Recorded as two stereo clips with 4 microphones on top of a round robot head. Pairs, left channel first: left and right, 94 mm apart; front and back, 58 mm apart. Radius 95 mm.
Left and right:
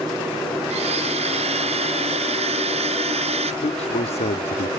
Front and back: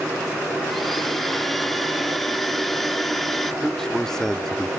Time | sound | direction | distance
0.7 | a blender | 90° right | ?
3.6 | a man speaking | 80° left | ?